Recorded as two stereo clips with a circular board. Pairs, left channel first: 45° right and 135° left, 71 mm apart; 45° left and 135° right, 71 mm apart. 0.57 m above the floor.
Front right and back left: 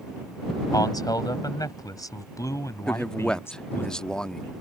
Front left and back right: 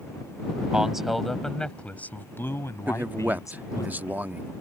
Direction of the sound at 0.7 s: 55° right.